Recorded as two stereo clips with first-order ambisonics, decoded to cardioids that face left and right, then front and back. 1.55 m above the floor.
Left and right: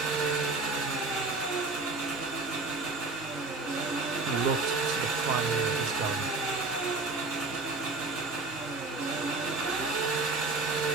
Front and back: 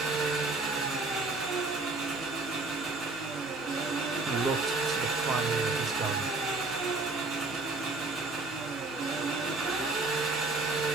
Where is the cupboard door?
No cupboard door in this recording.